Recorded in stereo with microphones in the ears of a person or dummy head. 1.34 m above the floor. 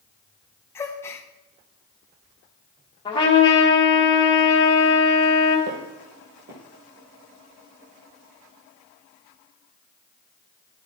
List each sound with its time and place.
0.8 s a gasp: 15° left (ahead or behind), 0.6 m
3.0 s a trumpet: 20° left (ahead or behind), 1.5 m
5.7 s footsteps: 50° right (ahead or behind), 2 m